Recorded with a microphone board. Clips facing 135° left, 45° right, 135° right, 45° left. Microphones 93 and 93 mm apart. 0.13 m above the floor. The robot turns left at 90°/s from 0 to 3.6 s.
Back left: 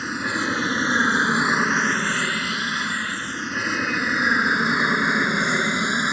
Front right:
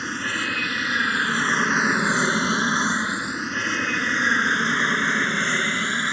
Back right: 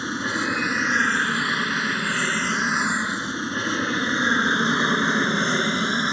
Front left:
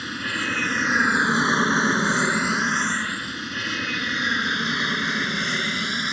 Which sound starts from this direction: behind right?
An aircraft, at 0.0 s.